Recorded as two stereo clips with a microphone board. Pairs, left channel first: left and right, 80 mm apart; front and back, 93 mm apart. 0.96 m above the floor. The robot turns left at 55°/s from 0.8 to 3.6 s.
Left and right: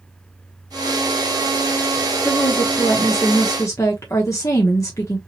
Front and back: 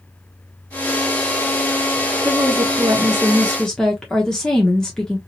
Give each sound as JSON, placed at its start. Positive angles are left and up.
{"t": 2.2, "sound": "a woman speaking", "azimuth_deg": 155, "distance_m": 1.0}